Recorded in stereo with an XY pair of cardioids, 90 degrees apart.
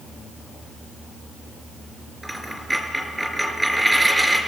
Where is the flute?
No flute in this recording.